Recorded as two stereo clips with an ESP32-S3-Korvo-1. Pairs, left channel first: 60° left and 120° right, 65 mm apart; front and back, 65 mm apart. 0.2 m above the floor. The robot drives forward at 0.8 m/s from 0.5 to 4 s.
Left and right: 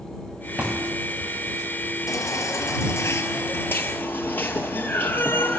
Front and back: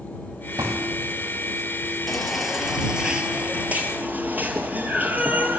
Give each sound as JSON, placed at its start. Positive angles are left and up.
{"t": 0.6, "sound": "a thud", "azimuth_deg": 175, "distance_m": 8.0}
{"t": 2.1, "sound": "a baby crying", "azimuth_deg": 85, "distance_m": 3.0}